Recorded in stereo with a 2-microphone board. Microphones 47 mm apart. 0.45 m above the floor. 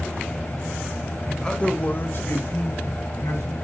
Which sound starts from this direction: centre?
A man speaking, at 1.3 s.